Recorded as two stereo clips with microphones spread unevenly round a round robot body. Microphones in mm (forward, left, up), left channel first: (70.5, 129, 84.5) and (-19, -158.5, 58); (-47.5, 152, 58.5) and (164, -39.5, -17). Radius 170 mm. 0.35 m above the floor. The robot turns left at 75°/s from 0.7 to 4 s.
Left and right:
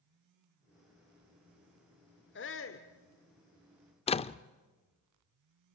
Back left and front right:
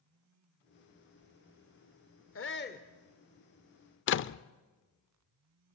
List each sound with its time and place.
2.4 s a shout: 105° left, 1.2 m; by 2.9 s 65° left, 1.2 m
4.1 s a door slam: 130° left, 0.5 m